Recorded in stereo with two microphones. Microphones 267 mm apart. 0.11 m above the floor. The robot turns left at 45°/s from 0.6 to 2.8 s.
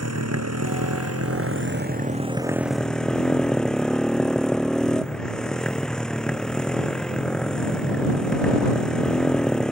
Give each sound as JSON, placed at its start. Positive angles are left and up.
{"t": 0.0, "sound": "a motorcycle", "azimuth_deg": -85}